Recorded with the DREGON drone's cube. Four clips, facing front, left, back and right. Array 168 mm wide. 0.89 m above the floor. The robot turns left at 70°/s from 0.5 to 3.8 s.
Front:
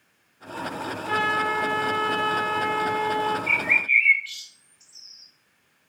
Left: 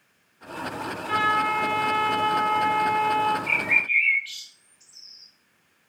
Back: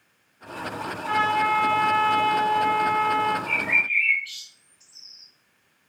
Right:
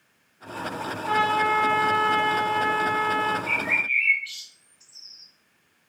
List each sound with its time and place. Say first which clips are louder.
1.1 s a trumpet: right 1 dB, back 3 dB; 140° right, 1.8 m; by 3.4 s 60° left, 1.8 m
3.5 s a bird: left 1 dB, front 1 dB; 35° left, 2 m; by 5.3 s 10° left, 2 m